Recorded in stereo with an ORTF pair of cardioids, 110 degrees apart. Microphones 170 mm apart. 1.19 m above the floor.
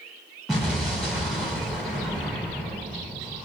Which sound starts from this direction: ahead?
An explosion, at 0.5 s.